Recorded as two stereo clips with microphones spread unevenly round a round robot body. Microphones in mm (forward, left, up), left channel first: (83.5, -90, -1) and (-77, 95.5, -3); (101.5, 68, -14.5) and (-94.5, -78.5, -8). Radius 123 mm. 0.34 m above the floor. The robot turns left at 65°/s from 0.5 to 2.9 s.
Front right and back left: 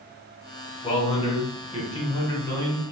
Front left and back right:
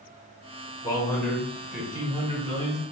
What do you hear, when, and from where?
0.8 s a man speaking: 10° right, 1.0 m; by 2.8 s 135° right, 1.0 m